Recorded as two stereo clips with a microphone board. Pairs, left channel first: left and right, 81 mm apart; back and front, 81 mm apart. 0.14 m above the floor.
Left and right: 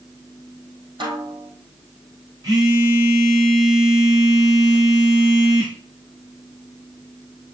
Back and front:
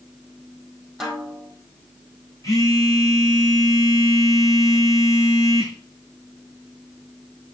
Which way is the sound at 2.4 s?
130° right.